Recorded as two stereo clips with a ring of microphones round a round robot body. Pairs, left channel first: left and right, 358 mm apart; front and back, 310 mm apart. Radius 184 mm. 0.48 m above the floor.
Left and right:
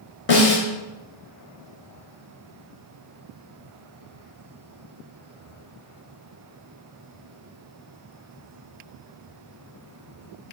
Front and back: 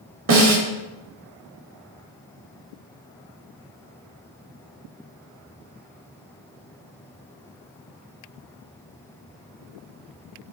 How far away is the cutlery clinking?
No cutlery clinking in this recording.